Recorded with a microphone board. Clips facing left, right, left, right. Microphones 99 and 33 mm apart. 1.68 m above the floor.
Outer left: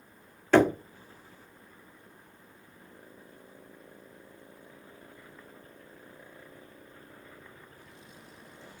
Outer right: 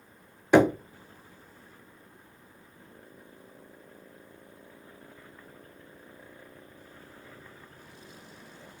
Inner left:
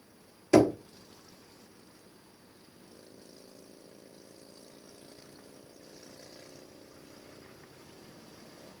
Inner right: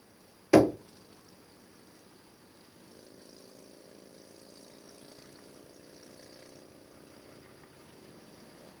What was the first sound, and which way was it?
Knocking, 15° right (ahead or behind).